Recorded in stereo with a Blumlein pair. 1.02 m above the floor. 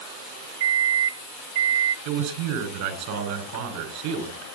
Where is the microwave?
50° right, 0.6 m.